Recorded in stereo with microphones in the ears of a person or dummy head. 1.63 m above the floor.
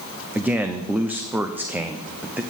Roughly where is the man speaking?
Centre.